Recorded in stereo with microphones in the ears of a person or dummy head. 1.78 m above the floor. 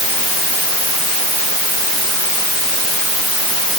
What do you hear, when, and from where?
Only background noise.